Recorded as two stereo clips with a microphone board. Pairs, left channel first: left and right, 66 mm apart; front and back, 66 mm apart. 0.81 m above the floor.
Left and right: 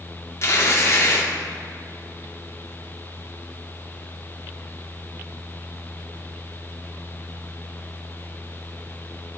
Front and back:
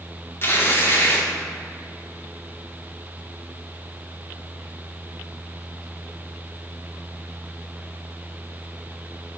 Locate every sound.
0.4 s tearing paper: 50° left, 1.7 m